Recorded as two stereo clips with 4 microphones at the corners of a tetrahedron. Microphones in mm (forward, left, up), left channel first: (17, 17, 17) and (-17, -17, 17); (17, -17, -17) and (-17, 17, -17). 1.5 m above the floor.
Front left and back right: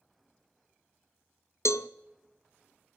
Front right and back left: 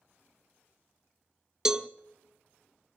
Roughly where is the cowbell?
Ahead left.